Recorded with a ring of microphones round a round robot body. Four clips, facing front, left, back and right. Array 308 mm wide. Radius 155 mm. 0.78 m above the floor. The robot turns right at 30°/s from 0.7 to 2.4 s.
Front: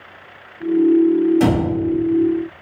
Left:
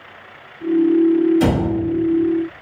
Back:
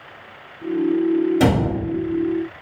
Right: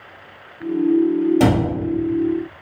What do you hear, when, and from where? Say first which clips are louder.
1.4 s a cupboard door: right 1 dB, front 1 dB; 125° right, 1.7 m; by 1.6 s 115° right, 1.7 m